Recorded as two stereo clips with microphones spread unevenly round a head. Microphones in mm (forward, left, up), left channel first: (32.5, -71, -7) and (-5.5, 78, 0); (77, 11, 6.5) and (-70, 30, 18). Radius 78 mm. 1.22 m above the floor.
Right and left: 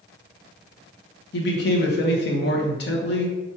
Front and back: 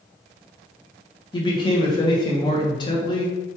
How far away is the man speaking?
About 0.9 m.